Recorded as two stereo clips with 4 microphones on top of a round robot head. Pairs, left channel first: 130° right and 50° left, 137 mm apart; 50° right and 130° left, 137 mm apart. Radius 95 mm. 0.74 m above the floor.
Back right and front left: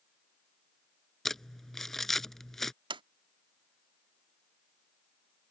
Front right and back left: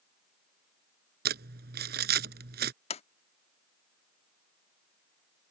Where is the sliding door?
5° right.